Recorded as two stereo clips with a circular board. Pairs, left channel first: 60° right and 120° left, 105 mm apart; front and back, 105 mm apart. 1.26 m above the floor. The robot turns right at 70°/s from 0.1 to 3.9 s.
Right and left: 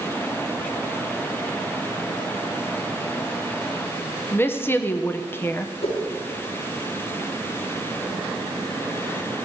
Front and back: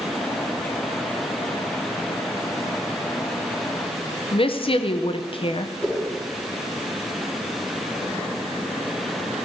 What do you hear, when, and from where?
4.3 s a woman speaking: 5° left, 0.8 m
5.8 s a whoosh: 75° right, 4.5 m